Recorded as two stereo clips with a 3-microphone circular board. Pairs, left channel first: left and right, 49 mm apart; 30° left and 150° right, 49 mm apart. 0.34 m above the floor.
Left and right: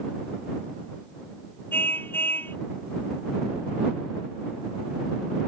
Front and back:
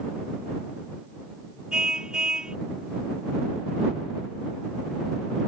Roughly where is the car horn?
Behind left.